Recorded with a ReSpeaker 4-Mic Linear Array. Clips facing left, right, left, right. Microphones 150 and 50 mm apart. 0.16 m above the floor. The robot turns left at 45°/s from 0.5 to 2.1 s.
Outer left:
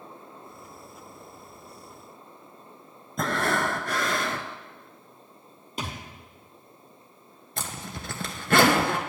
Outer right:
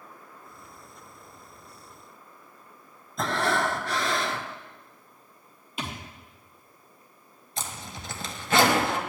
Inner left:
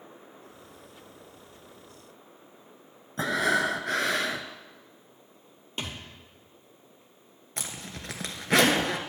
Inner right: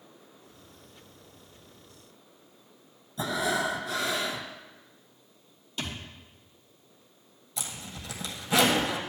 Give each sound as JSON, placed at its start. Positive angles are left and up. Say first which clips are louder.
{"t": 3.2, "sound": "breathing", "louder": "even, inner left 3 dB", "side_deg": 55, "distance_m": 0.8}
{"t": 5.8, "sound": "a thud", "louder": "outer left 1 dB, even", "side_deg": 40, "distance_m": 1.9}
{"t": 7.6, "sound": "a zipper", "louder": "outer left 1 dB, inner left 1 dB", "side_deg": 60, "distance_m": 1.2}